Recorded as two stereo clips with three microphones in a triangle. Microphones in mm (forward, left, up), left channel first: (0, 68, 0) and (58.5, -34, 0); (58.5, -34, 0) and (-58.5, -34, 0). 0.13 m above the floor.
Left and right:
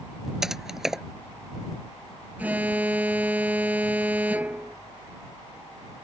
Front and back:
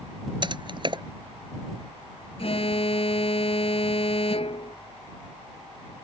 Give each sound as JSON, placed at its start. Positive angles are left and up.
{"t": 0.4, "sound": "typing on a keyboard", "azimuth_deg": -145}
{"t": 2.4, "sound": "an alarm", "azimuth_deg": 15}